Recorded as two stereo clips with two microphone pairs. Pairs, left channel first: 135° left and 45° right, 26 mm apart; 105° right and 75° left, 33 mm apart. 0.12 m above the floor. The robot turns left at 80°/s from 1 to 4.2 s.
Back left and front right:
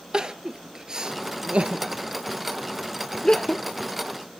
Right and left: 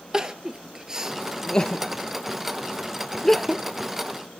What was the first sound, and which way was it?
Crying, 5° left.